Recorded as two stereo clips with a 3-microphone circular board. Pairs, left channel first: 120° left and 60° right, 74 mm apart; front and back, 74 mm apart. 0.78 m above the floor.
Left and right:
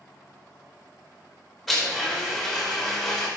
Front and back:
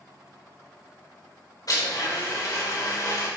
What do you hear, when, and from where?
1.7 s a blender: 35° left, 4 m